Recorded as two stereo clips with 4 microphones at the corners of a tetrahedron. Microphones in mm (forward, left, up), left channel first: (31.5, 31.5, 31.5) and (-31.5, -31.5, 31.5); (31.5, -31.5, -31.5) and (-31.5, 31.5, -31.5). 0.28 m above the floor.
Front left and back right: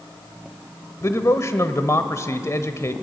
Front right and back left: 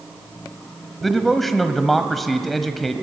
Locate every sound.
1.0 s a man speaking: 40° left, 1.1 m